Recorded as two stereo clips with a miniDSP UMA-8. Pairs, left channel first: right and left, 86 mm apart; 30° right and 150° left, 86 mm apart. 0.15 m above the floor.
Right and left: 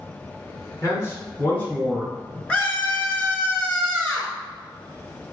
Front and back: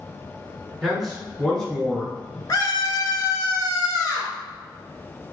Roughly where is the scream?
Ahead.